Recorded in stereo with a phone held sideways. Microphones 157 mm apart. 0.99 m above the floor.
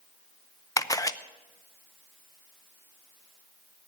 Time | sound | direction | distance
0.8 | a camera shutter | 25° left (ahead or behind) | 0.6 m